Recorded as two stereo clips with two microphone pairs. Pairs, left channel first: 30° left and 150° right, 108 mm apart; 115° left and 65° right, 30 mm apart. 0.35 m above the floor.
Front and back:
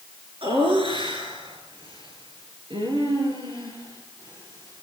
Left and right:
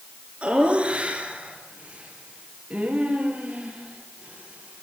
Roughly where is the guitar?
I don't hear a guitar.